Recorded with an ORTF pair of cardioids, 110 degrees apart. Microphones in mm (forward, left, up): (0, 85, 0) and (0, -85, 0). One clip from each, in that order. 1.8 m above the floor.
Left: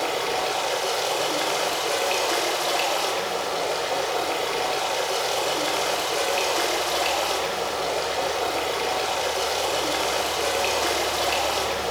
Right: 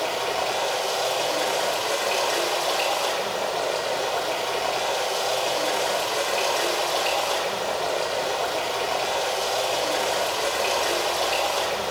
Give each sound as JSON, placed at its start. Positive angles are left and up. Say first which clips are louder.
{"t": 0.0, "sound": "running water", "louder": "even", "azimuth_deg": 30, "distance_m": 1.9}